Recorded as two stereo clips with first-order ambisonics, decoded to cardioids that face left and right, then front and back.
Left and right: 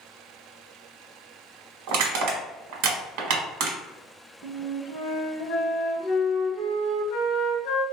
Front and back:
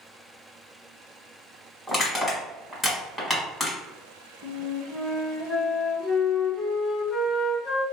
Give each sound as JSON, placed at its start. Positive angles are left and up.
{"t": 1.9, "sound": "crushing", "azimuth_deg": -85, "distance_m": 1.2}
{"t": 4.4, "sound": "a flute", "azimuth_deg": 80, "distance_m": 1.0}